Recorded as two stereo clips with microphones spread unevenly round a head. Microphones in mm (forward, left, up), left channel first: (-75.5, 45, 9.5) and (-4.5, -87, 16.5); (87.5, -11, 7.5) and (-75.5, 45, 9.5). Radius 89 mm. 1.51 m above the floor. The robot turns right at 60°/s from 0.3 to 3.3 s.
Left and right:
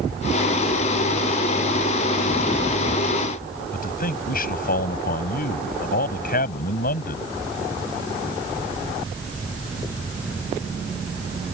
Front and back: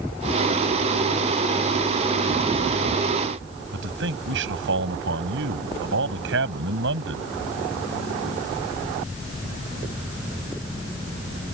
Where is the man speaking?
145° left.